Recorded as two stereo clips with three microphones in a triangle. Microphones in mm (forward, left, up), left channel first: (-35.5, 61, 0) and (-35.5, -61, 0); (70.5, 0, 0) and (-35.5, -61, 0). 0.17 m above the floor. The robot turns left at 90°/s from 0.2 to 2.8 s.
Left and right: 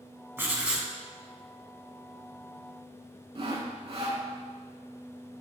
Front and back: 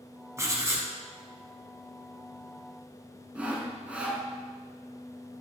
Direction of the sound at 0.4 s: 130° right.